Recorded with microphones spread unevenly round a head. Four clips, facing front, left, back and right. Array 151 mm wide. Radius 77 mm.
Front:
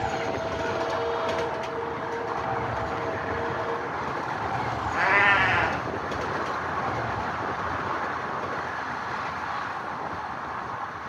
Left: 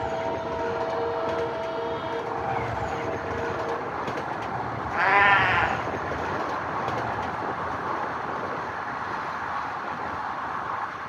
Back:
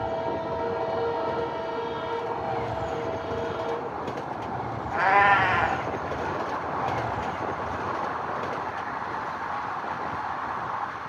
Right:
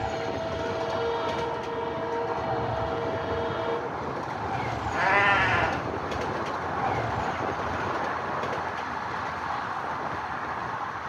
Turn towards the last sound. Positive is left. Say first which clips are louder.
# left 3 dB, back 3 dB
turn(degrees=125)